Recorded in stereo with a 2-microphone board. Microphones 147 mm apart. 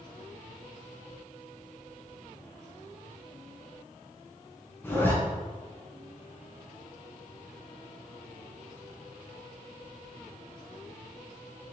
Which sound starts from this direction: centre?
A zipper, at 4.8 s.